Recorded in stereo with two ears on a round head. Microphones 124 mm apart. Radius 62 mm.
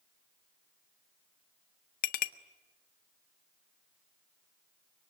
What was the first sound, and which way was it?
A clink, 70° left (ahead or behind).